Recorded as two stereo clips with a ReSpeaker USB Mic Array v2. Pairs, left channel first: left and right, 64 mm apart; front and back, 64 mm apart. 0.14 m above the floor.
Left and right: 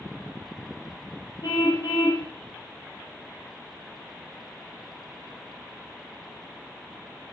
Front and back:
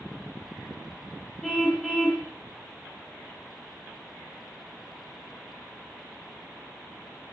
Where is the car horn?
85° left, 8.5 m.